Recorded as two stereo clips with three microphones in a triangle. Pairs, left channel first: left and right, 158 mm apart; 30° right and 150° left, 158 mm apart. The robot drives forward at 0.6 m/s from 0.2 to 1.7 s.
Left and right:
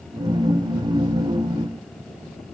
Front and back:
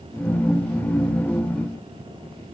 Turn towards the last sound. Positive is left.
No sound to turn to.